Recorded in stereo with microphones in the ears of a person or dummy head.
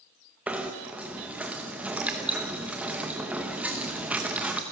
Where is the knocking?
5° right (ahead or behind), 0.9 m.